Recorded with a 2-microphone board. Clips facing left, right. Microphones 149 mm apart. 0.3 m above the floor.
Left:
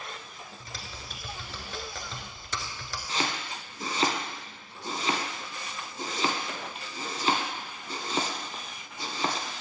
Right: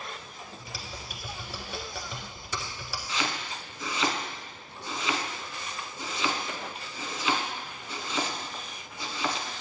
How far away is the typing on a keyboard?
About 1.2 m.